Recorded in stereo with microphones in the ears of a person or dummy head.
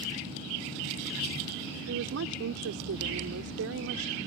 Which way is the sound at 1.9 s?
80° right.